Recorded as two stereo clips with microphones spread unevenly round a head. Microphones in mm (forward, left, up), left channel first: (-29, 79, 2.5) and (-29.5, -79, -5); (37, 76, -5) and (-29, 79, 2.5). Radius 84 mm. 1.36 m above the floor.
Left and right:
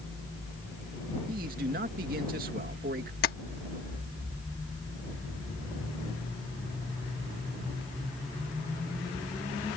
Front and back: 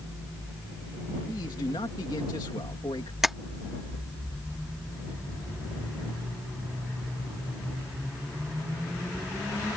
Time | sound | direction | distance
1.3 | a man speaking | 50° right | ?
3.2 | tapping | 95° left | ?